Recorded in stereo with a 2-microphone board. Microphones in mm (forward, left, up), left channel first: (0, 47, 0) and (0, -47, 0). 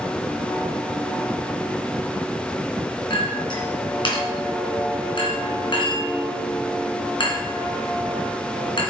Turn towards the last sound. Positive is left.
turn(degrees=65)  # may be behind; listen again after turning